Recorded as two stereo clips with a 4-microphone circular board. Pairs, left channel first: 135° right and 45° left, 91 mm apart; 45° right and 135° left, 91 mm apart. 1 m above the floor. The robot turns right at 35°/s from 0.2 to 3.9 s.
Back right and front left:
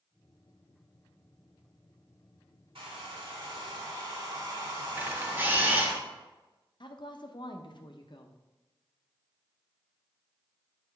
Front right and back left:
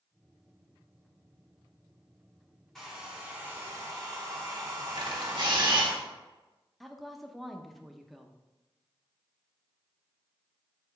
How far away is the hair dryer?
About 1.9 m.